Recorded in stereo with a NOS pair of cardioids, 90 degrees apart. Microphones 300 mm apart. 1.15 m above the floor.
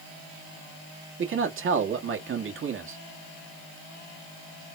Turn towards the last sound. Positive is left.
turn(degrees=-45)